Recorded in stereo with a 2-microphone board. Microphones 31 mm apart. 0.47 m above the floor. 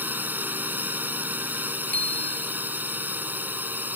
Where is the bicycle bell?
40° left (ahead or behind).